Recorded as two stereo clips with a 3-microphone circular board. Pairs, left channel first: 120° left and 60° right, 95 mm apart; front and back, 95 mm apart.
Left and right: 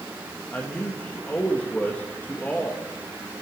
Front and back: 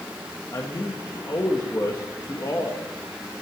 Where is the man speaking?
50° left, 1.5 m.